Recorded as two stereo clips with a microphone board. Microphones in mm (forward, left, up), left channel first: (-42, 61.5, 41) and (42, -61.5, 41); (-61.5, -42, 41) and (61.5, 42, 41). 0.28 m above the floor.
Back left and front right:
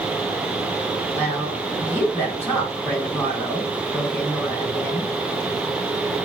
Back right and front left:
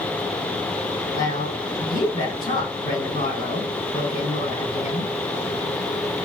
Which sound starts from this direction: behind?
A woman speaking, at 1.1 s.